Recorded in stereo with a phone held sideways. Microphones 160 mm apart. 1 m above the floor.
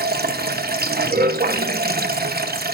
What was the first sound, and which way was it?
Running water, 75° right (ahead or behind).